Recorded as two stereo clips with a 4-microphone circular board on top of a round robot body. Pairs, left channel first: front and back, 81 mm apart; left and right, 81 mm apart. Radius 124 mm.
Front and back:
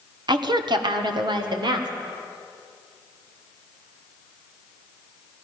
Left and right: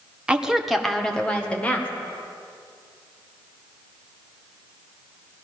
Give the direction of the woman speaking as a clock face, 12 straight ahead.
6 o'clock.